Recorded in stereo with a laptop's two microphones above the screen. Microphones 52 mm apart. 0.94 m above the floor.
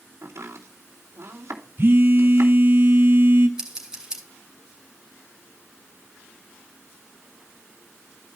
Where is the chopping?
70° right (ahead or behind), 3 m.